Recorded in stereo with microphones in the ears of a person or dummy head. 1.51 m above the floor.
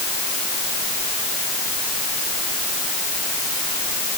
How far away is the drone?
I don't hear a drone.